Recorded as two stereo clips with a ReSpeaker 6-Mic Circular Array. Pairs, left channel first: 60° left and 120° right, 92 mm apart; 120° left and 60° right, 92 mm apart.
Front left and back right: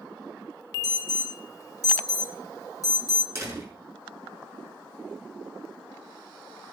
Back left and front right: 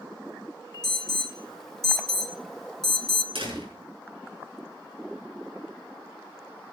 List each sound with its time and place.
0.8 s an alarm: 35° left, 1.3 m
3.4 s a door slam: 65° right, 6.5 m